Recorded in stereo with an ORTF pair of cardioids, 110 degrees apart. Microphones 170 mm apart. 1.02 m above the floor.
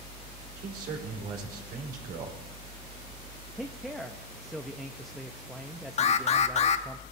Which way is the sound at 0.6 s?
65° right.